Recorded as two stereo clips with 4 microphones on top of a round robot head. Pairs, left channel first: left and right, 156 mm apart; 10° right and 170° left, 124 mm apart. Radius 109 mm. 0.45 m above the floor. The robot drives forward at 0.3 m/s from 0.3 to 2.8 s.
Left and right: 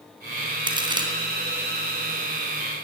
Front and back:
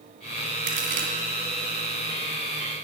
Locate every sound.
0.7 s a crack: 150° right, 2.5 m